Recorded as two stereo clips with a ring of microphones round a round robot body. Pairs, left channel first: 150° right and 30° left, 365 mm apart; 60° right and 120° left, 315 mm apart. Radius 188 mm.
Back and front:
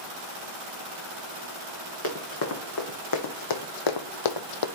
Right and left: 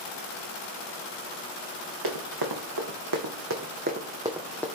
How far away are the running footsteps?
About 1.6 m.